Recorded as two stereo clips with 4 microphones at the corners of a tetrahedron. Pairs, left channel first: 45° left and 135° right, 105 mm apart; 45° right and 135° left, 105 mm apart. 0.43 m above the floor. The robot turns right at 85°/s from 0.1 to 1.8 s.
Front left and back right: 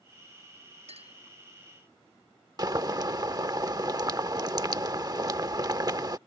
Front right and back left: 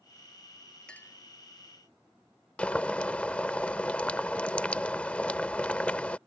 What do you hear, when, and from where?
0.9 s a clink: 130° right; by 1.2 s 105° right
2.6 s boiling: 115° right